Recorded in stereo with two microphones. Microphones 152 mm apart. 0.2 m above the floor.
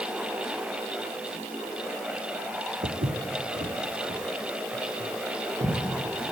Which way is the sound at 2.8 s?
75° right (ahead or behind).